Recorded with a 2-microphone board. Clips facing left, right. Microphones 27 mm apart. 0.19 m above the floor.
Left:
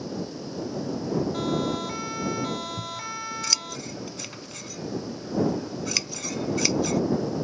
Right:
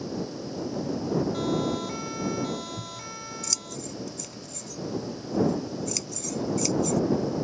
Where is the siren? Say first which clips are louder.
Even; 10° left (ahead or behind); by 3.8 s 30° left (ahead or behind).